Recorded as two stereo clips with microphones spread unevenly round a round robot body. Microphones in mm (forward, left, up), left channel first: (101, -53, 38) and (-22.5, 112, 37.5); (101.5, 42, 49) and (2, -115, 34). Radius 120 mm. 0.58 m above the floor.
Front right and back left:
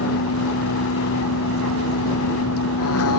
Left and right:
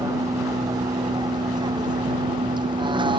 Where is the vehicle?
50° right; by 3.2 s 60° right.